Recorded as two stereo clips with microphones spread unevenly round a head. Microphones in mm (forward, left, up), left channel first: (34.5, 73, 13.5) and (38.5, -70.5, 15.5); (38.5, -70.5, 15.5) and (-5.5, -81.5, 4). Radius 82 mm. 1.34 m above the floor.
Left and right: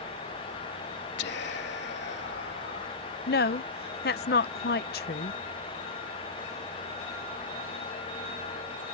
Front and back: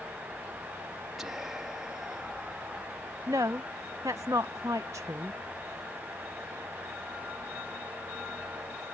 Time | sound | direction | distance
1.2 | whispering | 105° left | ?
3.3 | a woman speaking | 130° left | ?